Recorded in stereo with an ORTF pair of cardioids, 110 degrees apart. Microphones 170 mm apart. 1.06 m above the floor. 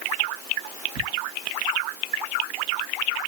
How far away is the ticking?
About 2.5 m.